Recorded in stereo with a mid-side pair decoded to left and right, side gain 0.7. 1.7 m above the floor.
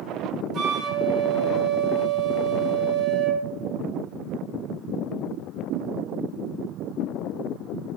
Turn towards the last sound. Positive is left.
turn(degrees=-45)